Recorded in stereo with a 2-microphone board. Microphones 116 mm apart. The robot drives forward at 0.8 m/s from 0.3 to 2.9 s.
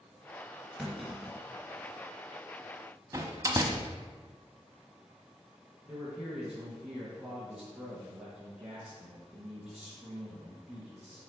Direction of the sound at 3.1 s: 25° right (ahead or behind).